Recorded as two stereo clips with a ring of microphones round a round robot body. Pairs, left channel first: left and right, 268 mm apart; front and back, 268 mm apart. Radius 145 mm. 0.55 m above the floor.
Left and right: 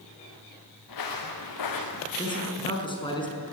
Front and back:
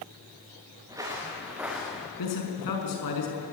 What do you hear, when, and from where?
0.9 s footsteps: 100° left, 4 m; by 2.1 s 90° left, 3 m
2.2 s a man speaking: 15° left, 5.5 m